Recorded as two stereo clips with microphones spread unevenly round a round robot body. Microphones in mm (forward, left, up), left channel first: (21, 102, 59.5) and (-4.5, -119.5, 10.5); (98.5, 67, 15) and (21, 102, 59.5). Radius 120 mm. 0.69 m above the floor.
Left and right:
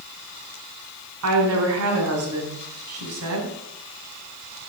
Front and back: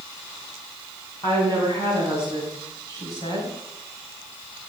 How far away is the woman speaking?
About 5.5 m.